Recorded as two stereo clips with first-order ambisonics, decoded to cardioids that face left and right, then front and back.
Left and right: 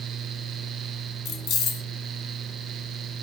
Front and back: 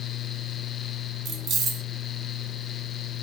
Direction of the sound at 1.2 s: 120° left.